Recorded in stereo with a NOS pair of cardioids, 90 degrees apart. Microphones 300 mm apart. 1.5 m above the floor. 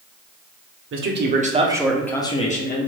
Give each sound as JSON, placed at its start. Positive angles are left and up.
{"t": 0.9, "sound": "a man speaking", "azimuth_deg": -45, "distance_m": 0.8}